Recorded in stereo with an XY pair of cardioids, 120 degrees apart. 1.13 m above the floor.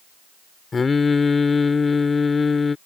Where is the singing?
25° left.